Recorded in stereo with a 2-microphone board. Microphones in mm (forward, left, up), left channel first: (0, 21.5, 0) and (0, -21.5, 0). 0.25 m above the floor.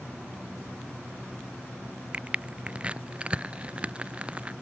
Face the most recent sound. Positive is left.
turn(degrees=-25)  # may be behind; listen again after turning